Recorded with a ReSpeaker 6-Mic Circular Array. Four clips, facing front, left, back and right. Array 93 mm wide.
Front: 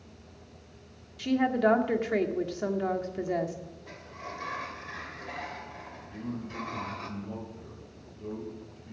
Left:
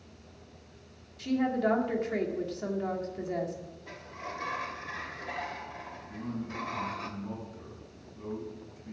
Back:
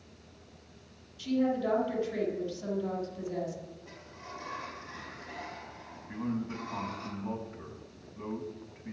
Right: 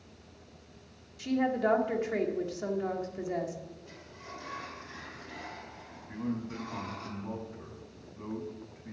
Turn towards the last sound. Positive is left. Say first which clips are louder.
# right 3 dB, back 4 dB
turn(degrees=-165)